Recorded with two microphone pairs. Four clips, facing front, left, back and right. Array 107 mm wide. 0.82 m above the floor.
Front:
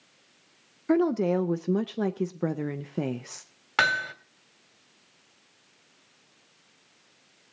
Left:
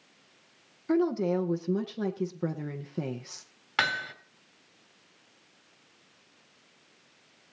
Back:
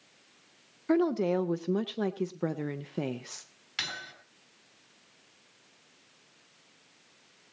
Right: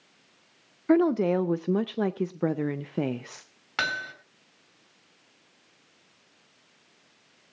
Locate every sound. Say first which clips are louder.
0.9 s a woman speaking: right 4 dB, front 3 dB; 80° right, 0.5 m
3.8 s hammering: left 1 dB, front 16 dB; 5° right, 2.5 m